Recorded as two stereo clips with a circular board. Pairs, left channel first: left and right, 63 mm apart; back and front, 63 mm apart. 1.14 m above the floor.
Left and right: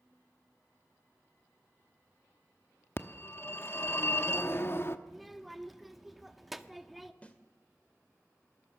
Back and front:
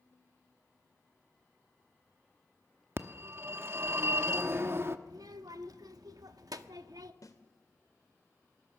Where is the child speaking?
Straight ahead, 1.2 m.